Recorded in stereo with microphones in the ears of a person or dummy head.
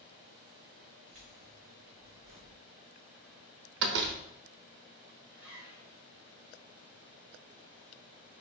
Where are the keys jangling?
45° right (ahead or behind), 2.5 m; by 2.6 s 50° right (ahead or behind), 0.9 m.